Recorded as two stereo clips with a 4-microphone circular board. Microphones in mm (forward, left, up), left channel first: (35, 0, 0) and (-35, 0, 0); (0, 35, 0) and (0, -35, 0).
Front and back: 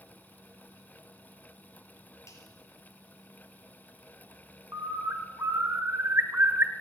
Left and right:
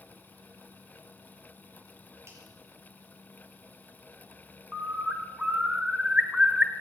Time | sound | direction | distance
2.3 | a finger snap | 40° right | 5 m
4.7 | a bird | 155° right | 1.1 m